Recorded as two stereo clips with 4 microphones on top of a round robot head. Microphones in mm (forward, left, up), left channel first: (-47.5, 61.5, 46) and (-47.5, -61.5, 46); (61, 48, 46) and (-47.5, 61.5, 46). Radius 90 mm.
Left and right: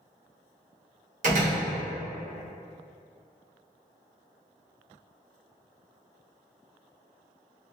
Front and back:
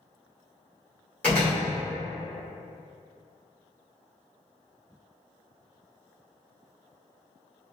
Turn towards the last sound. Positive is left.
turn(degrees=-85)